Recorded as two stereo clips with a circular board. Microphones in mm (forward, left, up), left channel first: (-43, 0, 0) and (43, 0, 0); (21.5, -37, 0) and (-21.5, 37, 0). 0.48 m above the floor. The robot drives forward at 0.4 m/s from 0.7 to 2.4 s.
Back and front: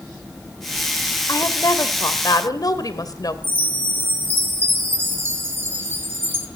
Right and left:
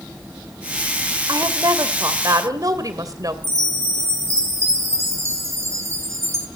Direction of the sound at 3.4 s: 65° left.